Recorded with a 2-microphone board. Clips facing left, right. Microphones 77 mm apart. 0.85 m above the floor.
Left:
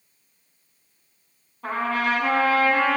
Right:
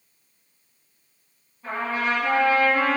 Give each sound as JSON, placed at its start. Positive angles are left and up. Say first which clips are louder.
{"t": 1.6, "sound": "a trumpet", "louder": "left 2 dB", "side_deg": 80, "distance_m": 4.0}